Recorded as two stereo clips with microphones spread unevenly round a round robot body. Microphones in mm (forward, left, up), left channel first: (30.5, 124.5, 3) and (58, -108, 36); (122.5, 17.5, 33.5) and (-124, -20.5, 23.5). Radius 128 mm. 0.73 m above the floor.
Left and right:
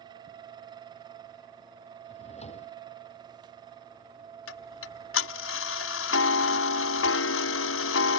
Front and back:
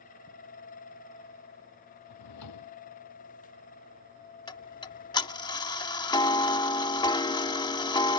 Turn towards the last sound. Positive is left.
turn(degrees=80)